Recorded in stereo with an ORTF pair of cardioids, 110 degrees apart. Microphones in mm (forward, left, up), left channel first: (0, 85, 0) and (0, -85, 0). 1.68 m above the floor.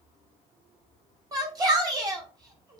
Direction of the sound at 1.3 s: 25° right.